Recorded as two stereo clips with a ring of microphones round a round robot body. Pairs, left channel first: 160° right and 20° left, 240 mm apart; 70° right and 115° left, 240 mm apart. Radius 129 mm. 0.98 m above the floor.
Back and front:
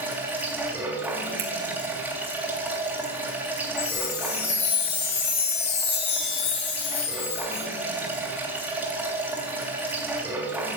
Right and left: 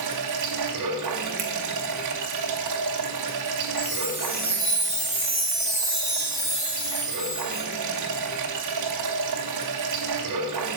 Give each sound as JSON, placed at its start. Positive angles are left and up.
{"t": 0.0, "sound": "running water", "azimuth_deg": 105, "distance_m": 2.5}
{"t": 1.4, "sound": "a finger snap", "azimuth_deg": 60, "distance_m": 3.0}
{"t": 3.8, "sound": "a chime", "azimuth_deg": -150, "distance_m": 8.0}